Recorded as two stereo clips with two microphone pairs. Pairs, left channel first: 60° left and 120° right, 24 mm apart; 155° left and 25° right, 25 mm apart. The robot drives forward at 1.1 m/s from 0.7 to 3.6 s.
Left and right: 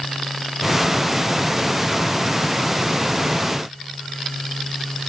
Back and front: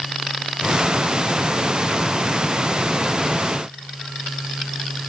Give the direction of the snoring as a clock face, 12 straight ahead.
No snoring in this recording.